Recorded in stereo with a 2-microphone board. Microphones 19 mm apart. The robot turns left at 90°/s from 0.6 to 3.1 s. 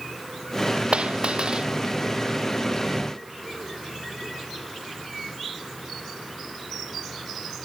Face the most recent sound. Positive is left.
turn(degrees=90)